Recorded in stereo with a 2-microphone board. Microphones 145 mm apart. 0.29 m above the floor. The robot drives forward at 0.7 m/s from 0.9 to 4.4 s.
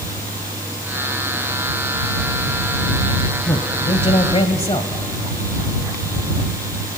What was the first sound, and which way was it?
A man speaking, 35° left (ahead or behind).